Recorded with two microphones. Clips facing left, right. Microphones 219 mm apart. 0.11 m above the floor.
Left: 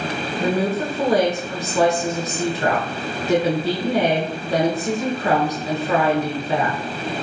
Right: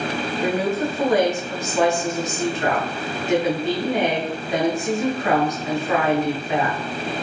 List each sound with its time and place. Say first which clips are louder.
0.4 s a woman speaking: left 1 dB; 35° left (ahead or behind), 1.4 m